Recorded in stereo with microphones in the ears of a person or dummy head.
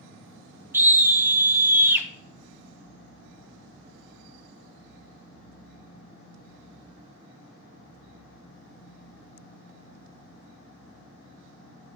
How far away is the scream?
About 0.8 m.